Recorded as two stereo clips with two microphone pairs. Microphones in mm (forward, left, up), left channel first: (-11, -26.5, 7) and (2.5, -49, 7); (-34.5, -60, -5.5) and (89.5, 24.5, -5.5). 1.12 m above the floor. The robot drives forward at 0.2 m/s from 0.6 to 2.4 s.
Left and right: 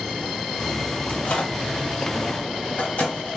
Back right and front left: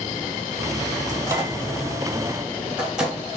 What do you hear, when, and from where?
1.1 s a microwave: 95° left, 0.7 m; by 3.2 s 115° left, 0.7 m